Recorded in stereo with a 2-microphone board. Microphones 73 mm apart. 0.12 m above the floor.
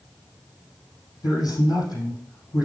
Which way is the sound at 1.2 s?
65° left (ahead or behind).